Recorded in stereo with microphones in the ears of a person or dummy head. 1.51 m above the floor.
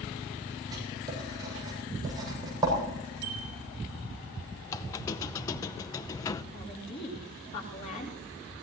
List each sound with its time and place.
0.7 s writing: 25° right (ahead or behind), 7.5 m
3.2 s a bicycle bell: 60° right (ahead or behind), 3 m
4.7 s a squeak: 20° left (ahead or behind), 0.6 m
6.5 s a woman speaking: 45° left (ahead or behind), 3.5 m